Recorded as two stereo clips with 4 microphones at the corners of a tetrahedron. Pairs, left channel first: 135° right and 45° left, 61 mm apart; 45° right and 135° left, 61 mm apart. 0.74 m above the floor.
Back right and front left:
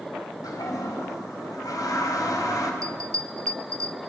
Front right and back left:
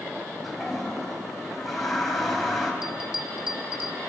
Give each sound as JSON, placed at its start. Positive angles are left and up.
{"t": 0.4, "sound": "a toilet flushing", "azimuth_deg": -135, "distance_m": 4.5}
{"t": 2.8, "sound": "a bell", "azimuth_deg": 60, "distance_m": 1.6}